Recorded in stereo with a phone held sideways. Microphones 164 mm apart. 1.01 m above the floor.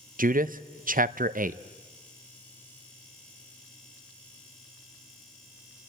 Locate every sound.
0.2 s a man speaking: 65° right (ahead or behind), 0.5 m